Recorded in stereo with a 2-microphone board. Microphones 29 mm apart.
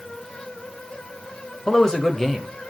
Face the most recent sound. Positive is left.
turn(degrees=0)  # may be behind; listen again after turning